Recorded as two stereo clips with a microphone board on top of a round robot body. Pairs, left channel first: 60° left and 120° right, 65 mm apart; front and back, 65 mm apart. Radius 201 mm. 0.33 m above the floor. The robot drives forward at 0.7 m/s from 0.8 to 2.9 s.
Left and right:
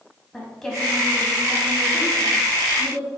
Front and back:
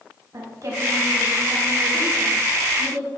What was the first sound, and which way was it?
A woman speaking, 145° left.